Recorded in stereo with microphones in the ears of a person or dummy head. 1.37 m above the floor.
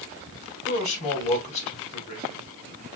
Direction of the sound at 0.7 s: 40° left (ahead or behind).